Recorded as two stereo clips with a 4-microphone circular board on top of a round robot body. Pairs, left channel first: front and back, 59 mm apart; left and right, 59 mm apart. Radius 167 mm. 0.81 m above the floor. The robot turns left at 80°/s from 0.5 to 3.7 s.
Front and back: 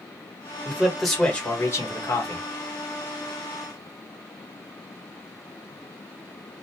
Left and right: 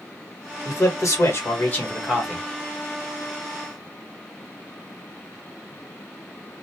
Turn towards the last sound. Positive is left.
turn(degrees=-125)